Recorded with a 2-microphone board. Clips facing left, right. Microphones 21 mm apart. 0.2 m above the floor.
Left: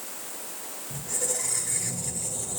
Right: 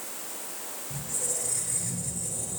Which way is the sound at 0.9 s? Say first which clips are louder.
Left 3 dB; 75° left (ahead or behind).